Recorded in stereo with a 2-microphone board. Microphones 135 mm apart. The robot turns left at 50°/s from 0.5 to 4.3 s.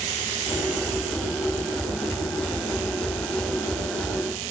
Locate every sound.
Only background noise.